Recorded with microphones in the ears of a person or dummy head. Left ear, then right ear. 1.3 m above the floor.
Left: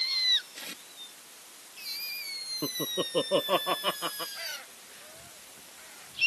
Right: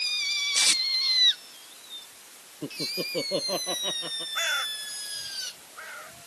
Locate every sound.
0.6 s tape being pulled: 45° right (ahead or behind)
2.6 s laughter: 40° left (ahead or behind)
4.3 s a bird: 50° right (ahead or behind)